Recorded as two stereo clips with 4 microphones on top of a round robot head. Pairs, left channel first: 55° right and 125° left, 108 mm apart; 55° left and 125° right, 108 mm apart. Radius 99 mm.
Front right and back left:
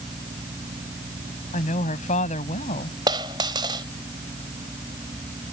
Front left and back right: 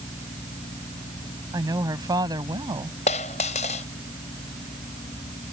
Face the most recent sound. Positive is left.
turn(degrees=75)